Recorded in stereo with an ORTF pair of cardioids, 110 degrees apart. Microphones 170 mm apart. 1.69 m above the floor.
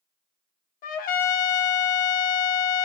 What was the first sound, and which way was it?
A trumpet, 60° left.